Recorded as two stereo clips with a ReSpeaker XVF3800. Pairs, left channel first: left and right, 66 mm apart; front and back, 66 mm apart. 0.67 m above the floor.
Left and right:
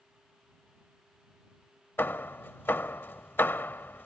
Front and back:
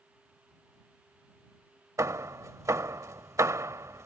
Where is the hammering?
145° left.